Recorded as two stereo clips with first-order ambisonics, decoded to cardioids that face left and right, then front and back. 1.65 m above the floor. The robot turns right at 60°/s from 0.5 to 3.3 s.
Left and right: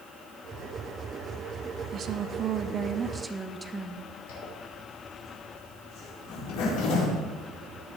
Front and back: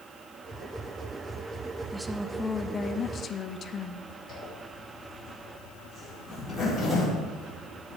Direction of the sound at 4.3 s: 90° left.